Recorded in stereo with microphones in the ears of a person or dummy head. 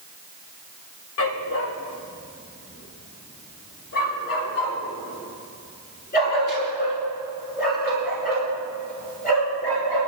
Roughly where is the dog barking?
Left.